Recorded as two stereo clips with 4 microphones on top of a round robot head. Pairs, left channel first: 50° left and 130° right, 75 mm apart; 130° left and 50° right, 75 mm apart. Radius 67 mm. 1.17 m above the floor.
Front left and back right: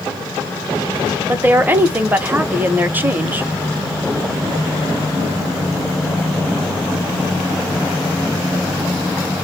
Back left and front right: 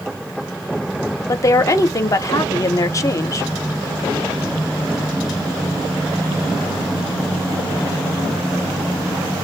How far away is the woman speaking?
About 0.7 m.